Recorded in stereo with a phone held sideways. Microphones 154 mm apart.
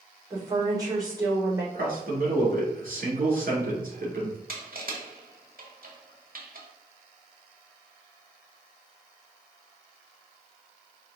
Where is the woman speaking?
25° right (ahead or behind), 2.5 m.